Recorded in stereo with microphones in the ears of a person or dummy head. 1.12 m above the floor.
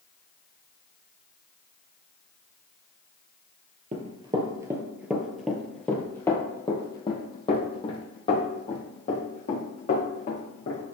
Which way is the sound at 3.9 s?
35° right (ahead or behind).